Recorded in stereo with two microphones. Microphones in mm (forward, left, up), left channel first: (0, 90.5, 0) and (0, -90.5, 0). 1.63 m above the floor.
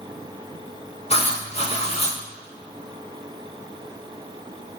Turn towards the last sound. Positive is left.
turn(degrees=35)  # may be behind; listen again after turning